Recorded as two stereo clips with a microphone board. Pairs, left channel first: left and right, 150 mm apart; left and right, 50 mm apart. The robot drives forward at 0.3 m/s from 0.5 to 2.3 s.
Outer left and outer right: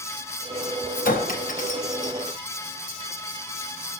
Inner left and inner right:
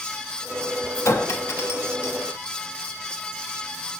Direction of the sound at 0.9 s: 75° left (ahead or behind).